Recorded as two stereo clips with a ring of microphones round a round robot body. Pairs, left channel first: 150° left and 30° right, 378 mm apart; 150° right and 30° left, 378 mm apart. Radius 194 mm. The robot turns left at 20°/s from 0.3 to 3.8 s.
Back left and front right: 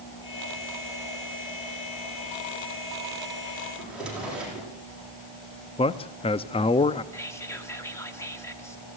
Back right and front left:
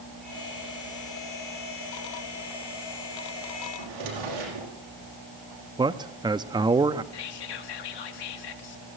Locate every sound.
3.8 s a drawer: 60° left, 7.5 m; by 4.7 s 55° left, 7.5 m
5.8 s a man speaking: 95° left, 0.6 m
7.1 s whispering: 125° right, 3 m